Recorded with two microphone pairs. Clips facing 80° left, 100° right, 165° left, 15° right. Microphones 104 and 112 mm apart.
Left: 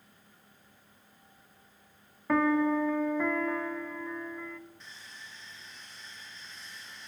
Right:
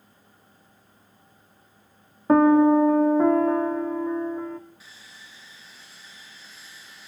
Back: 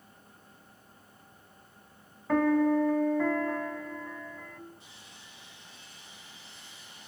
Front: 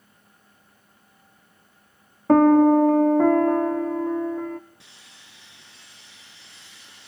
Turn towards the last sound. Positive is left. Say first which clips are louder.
# even, even
turn(degrees=-15)